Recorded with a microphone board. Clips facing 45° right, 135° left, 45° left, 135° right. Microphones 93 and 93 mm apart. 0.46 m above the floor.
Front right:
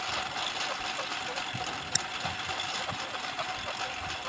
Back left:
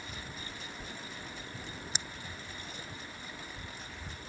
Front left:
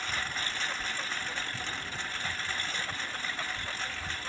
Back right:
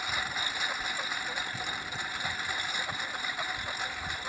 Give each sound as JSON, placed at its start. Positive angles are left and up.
{"t": 0.0, "sound": "a lawn mower", "azimuth_deg": -55}